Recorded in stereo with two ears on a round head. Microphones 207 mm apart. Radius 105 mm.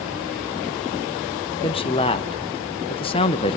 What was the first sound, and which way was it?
A man speaking, 25° left (ahead or behind).